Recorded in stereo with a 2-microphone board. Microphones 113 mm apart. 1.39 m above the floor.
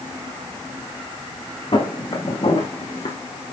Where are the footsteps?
60° left (ahead or behind), 4.5 m; by 3.2 s 70° left (ahead or behind), 3.5 m.